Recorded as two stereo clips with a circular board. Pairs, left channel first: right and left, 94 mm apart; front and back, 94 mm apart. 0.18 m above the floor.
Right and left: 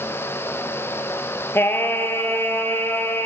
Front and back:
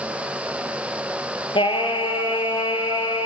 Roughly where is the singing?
Ahead right.